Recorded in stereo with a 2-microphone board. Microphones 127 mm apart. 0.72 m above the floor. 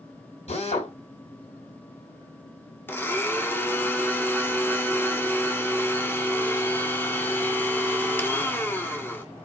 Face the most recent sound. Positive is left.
turn(degrees=15)  # may be behind; listen again after turning